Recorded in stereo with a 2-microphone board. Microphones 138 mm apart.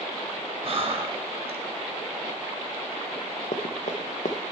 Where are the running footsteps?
65° left (ahead or behind), 0.9 m.